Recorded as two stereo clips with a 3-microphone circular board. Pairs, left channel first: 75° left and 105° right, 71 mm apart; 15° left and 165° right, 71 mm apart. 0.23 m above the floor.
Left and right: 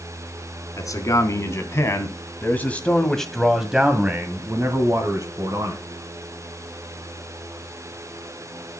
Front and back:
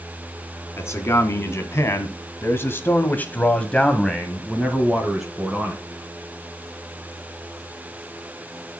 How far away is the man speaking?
About 2.5 m.